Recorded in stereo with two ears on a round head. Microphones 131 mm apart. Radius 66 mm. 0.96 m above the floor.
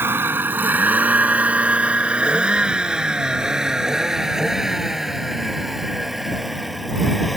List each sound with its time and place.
0.0 s a vehicle: 15° right (ahead or behind); by 7.4 s centre (ahead or behind)